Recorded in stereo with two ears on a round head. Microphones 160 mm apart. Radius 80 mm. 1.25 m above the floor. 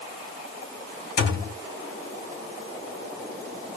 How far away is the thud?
About 2.0 m.